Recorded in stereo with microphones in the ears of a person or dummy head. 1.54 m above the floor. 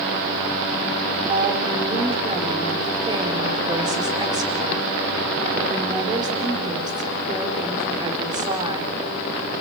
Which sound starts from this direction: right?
A woman speaking, at 1.3 s.